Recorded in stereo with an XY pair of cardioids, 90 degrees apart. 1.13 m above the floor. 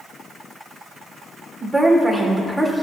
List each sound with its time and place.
1.6 s a woman speaking: straight ahead, 3 m